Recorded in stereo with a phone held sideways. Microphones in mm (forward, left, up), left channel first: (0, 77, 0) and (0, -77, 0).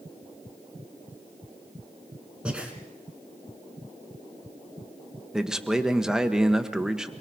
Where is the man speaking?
5° right (ahead or behind), 1.2 m.